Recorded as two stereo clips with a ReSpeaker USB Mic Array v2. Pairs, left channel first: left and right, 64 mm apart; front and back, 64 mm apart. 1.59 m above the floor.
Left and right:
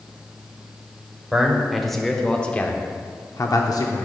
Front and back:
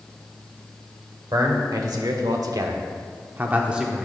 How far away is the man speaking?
About 1.2 m.